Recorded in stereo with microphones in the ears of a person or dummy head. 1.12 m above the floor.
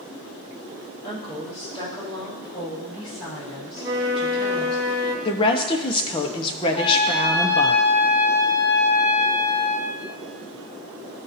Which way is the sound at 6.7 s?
25° left (ahead or behind).